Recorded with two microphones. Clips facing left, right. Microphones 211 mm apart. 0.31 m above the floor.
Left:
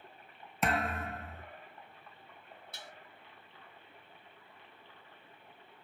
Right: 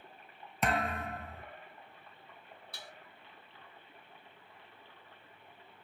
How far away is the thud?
About 0.6 m.